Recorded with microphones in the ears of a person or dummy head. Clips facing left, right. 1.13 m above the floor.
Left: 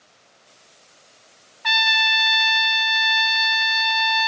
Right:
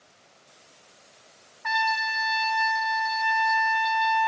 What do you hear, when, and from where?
1.6 s a trumpet: 45° left (ahead or behind), 0.6 m